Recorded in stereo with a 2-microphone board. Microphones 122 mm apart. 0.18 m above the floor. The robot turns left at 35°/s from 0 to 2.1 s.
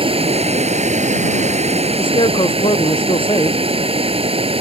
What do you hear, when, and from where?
0.0 s running water: 50° right; by 4.6 s 125° right
2.0 s a man speaking: 45° left (ahead or behind); by 3.6 s 40° left (ahead or behind)